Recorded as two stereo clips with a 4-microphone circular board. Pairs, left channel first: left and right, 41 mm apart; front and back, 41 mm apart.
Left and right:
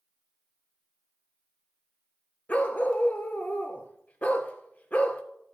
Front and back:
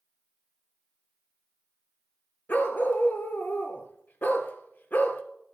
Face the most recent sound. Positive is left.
turn(degrees=40)